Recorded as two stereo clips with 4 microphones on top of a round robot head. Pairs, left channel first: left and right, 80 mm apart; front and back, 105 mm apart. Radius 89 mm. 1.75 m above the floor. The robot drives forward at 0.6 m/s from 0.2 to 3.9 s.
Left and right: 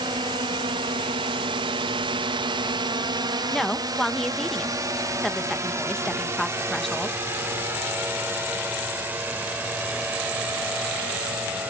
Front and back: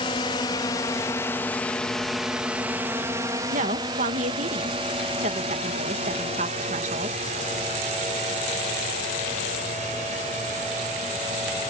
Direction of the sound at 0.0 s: 50° right.